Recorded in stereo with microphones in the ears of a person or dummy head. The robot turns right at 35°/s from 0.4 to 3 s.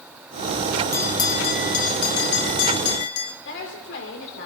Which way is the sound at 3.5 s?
65° left (ahead or behind).